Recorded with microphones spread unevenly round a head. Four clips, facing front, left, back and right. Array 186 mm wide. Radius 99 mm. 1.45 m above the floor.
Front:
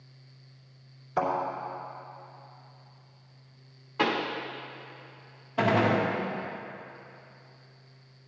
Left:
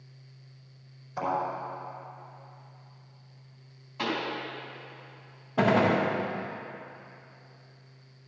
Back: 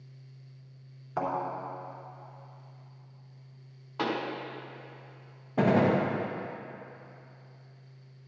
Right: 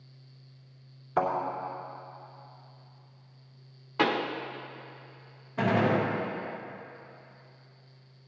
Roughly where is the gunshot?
Behind left.